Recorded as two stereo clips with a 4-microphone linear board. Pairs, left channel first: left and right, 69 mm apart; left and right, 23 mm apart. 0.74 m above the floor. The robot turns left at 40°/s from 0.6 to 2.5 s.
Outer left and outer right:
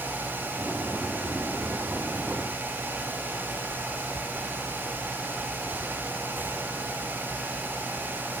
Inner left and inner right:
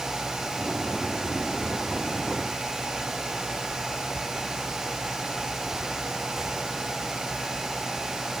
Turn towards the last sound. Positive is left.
No sound to turn to.